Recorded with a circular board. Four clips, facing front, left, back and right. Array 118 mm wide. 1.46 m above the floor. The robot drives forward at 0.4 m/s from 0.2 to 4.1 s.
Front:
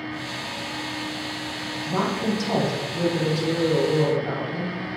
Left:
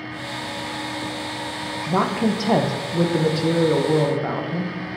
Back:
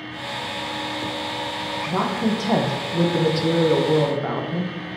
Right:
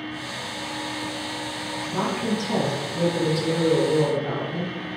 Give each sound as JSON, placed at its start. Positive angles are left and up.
{"t": 1.9, "sound": "a woman speaking", "azimuth_deg": 95, "distance_m": 1.0}